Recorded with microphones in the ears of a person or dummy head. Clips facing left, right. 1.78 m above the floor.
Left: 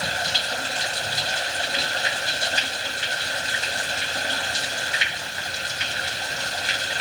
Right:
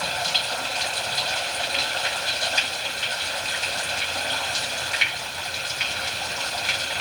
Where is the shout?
I don't hear a shout.